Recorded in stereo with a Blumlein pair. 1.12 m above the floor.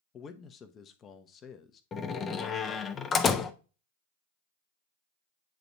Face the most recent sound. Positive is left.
turn(degrees=20)